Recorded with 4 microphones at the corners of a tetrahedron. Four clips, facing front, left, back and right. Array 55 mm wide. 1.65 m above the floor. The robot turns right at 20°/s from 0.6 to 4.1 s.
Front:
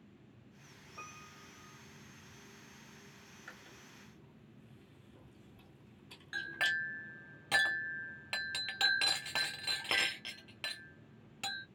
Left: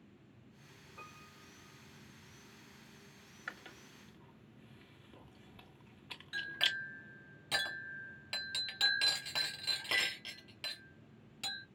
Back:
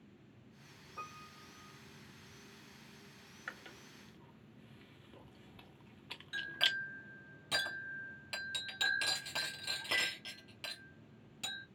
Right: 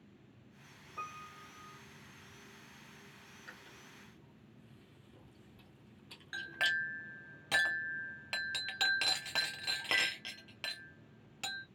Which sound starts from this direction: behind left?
Chewing, at 3.5 s.